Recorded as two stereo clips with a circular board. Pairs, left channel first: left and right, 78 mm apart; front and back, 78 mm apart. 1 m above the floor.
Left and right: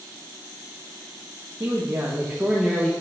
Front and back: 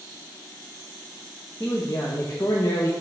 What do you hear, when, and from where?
1.6 s a man speaking: 50° right, 1.6 m; by 2.9 s 10° left, 0.9 m